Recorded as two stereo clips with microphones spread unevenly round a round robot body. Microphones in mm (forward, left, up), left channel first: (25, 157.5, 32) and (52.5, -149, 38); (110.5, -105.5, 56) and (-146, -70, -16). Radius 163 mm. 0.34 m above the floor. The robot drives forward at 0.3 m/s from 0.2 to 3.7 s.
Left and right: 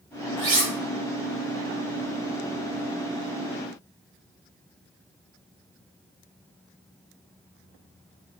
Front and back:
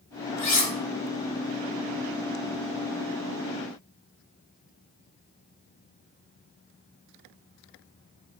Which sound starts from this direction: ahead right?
Cutlery clinking, at 0.4 s.